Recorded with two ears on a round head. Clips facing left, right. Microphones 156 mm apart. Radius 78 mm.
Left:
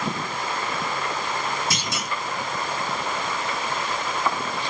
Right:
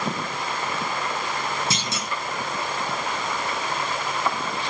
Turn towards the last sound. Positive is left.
turn(degrees=-25)  # may be behind; listen again after turning